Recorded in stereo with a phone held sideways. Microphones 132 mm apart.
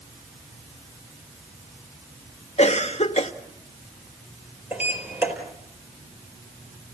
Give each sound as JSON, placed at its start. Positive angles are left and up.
{"t": 2.6, "sound": "a cough", "side_deg": 55, "distance_m": 1.3}
{"t": 4.7, "sound": "a sliding door", "side_deg": -15, "distance_m": 4.5}